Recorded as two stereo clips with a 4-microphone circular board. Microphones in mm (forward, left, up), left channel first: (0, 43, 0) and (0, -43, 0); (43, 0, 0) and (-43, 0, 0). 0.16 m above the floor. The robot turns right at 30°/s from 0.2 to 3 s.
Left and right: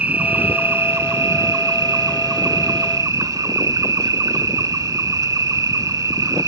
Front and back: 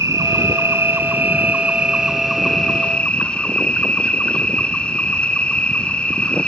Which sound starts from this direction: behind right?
An insect, at 0.0 s.